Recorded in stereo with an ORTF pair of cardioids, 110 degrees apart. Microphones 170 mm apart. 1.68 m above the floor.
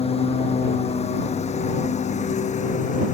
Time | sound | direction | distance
0.0 | a lawn mower | 35° left | ?